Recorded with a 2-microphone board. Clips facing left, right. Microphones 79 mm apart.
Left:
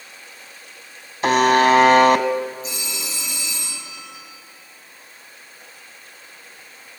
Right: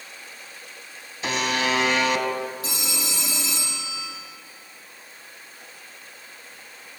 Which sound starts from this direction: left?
A buzzer, at 1.2 s.